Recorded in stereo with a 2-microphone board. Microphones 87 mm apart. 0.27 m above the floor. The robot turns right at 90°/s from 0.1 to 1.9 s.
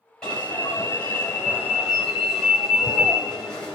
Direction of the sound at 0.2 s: 5° left (ahead or behind).